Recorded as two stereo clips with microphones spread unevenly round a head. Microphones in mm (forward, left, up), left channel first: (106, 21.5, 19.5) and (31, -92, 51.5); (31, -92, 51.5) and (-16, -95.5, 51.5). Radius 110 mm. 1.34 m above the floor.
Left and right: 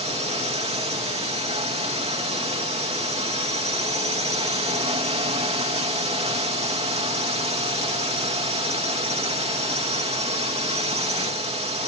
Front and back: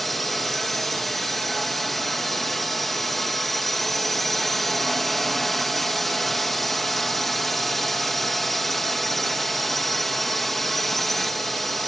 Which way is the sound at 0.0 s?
80° right.